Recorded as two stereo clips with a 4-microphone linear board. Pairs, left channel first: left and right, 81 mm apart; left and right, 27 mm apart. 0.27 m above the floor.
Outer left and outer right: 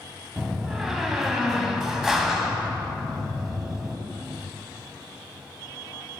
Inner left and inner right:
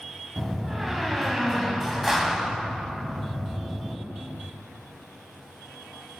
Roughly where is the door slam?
Centre.